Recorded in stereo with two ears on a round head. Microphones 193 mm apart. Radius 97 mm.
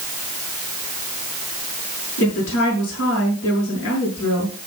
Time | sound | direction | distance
2.2 | a woman speaking | 60° left (ahead or behind) | 5.5 m